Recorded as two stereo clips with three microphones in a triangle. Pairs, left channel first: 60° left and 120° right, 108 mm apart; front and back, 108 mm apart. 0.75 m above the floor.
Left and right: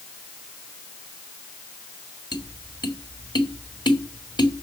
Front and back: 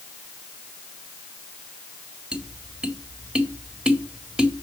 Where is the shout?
I don't hear a shout.